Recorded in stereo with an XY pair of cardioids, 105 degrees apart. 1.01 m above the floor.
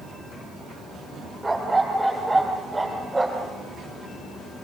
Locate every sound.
1.4 s a dog barking: 10° right, 8 m